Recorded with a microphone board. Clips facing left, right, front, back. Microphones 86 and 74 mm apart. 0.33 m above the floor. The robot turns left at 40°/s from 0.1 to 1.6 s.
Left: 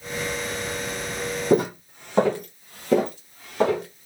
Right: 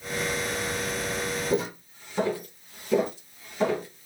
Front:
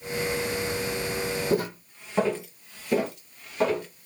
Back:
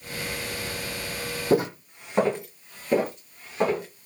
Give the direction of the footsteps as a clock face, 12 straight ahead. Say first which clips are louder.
Left 11 dB, back 9 dB; 8 o'clock.